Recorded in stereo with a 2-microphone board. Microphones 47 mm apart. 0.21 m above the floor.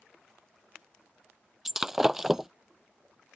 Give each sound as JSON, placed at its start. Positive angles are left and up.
{"t": 1.6, "sound": "breaking glass", "side_deg": -10}